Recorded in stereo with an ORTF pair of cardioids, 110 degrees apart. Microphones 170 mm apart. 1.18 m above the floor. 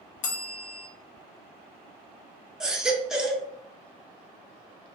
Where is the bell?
50° left, 0.5 m.